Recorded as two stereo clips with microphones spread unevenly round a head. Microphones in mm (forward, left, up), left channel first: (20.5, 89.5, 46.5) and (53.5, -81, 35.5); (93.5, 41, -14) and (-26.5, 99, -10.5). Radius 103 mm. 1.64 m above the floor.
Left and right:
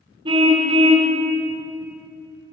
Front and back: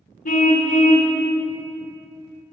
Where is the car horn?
15° right, 3 m.